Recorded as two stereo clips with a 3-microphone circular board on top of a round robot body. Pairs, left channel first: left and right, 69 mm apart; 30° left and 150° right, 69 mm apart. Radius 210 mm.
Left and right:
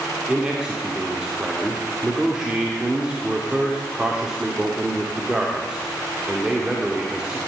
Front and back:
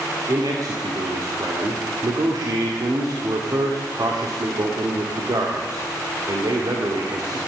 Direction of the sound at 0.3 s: 170° right.